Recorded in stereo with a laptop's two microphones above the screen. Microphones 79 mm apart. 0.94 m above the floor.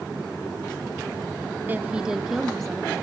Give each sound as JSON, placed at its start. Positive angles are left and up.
{"t": 1.7, "sound": "a woman speaking", "side_deg": -25, "distance_m": 0.5}